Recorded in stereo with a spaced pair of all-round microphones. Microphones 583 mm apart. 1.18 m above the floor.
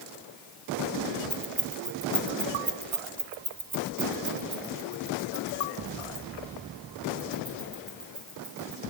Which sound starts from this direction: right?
Keys jangling, at 1.3 s.